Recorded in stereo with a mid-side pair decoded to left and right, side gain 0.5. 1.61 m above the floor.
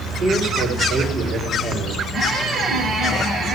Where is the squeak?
50° right, 5.5 m.